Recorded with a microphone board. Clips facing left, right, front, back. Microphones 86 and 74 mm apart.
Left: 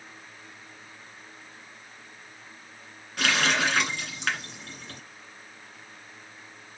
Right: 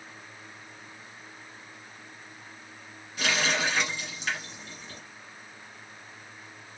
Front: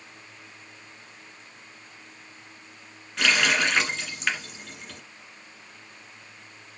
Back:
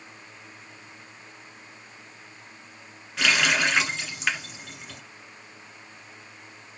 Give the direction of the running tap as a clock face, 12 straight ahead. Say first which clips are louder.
Left 3 dB, even; 9 o'clock.